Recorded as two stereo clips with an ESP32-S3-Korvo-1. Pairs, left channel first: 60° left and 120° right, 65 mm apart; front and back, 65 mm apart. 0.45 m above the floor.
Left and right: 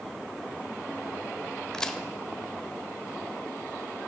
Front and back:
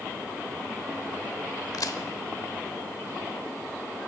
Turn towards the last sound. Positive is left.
turn(degrees=-20)